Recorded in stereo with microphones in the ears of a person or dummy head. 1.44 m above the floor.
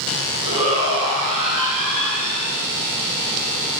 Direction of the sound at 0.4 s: 30° right (ahead or behind).